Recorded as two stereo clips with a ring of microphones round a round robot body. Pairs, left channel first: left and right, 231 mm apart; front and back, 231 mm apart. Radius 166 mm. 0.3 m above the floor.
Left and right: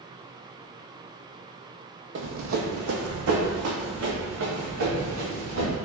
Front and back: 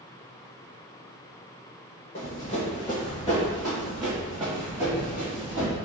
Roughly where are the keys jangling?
No keys jangling in this recording.